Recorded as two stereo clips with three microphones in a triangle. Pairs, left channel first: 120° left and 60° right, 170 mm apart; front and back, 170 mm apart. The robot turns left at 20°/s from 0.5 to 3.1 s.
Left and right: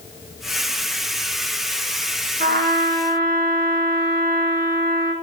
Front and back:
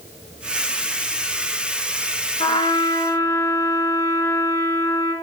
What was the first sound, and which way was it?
A trumpet, 60° right.